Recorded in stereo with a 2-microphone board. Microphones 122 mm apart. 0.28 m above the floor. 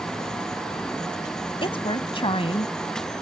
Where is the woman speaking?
45° left (ahead or behind).